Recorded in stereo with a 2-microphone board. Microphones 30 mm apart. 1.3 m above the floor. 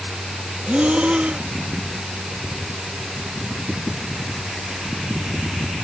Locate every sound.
0.7 s breathing: 40° right (ahead or behind)